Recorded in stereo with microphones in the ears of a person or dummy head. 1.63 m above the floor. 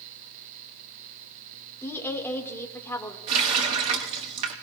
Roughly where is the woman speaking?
Centre.